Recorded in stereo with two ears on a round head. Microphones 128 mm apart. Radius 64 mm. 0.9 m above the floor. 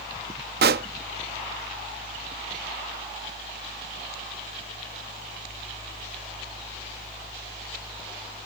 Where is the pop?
75° right (ahead or behind).